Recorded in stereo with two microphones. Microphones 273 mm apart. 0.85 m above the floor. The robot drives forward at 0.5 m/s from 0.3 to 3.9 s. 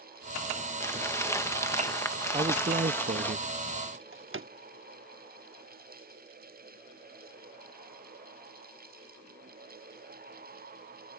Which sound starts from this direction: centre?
Crumpling, at 0.8 s.